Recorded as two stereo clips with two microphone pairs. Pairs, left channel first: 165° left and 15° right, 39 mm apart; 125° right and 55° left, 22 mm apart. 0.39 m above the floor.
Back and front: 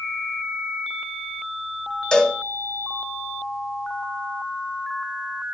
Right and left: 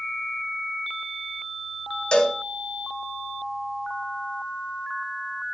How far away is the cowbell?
About 1.7 m.